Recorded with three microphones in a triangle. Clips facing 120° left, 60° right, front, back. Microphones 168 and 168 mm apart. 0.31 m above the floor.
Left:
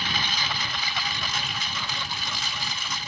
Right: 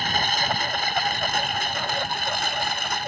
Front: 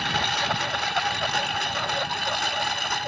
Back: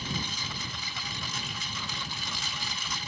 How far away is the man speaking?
No man speaking in this recording.